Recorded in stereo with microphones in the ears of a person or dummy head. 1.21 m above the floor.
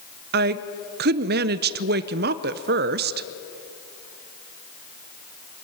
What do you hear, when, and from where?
0.3 s a woman speaking: 55° right (ahead or behind), 0.6 m